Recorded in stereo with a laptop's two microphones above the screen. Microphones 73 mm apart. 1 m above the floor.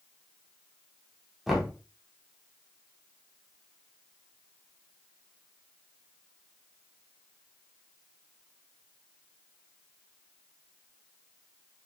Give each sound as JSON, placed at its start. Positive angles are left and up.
{"t": 1.5, "sound": "knocking", "side_deg": 0, "distance_m": 0.5}